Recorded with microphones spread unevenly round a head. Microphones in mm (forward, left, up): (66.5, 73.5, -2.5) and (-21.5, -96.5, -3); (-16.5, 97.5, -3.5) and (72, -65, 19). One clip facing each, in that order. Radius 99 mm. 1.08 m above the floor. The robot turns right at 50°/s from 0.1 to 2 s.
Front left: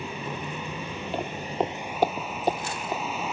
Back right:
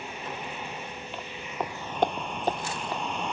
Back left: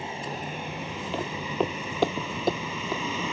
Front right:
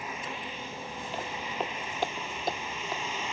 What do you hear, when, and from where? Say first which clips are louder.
0.0 s a vehicle: front left 3 dB, back left 4 dB; 55° left; by 3.4 s 150° left
1.1 s footsteps: front left 7 dB, back left 7 dB; 115° left; by 3.0 s 140° left